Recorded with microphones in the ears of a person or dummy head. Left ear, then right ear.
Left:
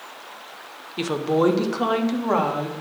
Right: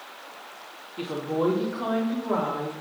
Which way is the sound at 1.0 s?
45° left (ahead or behind).